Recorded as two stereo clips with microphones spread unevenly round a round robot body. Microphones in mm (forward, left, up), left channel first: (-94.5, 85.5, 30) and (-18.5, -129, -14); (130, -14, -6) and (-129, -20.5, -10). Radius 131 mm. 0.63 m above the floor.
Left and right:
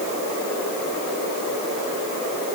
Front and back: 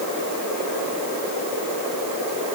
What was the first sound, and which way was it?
Only background noise.